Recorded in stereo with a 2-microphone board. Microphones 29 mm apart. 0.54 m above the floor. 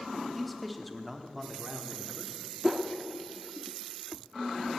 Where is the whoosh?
15° right (ahead or behind), 1.0 m.